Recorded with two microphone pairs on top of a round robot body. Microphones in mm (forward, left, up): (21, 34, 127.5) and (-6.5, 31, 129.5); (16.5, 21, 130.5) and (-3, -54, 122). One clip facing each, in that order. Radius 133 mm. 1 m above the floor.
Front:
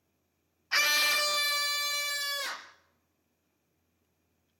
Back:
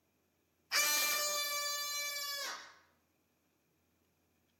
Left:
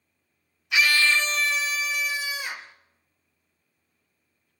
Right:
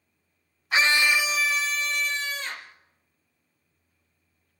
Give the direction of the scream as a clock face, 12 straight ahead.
2 o'clock.